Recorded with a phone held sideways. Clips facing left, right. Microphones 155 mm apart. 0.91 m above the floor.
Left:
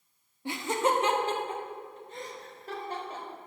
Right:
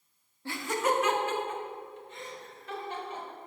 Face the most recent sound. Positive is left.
turn(degrees=40)  # may be behind; listen again after turning